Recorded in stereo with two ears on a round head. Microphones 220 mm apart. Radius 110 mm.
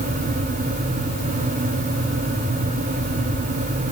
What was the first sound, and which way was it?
Only background noise.